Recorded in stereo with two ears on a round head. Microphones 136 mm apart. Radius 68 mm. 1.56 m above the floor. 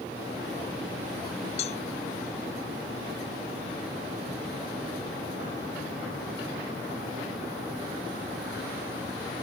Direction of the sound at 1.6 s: 45° left (ahead or behind).